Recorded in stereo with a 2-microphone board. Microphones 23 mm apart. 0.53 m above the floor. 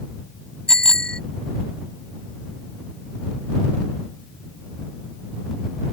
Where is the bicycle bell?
30° left (ahead or behind).